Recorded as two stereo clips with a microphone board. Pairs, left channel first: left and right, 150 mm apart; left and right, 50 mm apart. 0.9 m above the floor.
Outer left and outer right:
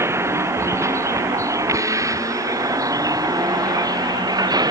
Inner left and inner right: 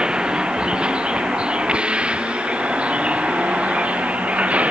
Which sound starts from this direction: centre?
A vehicle, at 0.0 s.